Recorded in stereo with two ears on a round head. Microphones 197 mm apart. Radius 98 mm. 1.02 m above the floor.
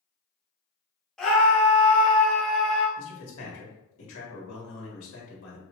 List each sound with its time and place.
1.2 s a scream: 5° left (ahead or behind), 1.1 m
3.0 s a man speaking: 70° left (ahead or behind), 2 m